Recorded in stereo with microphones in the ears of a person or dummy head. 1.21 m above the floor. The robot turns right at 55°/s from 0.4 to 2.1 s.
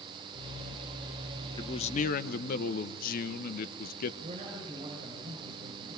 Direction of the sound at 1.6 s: 20° left (ahead or behind).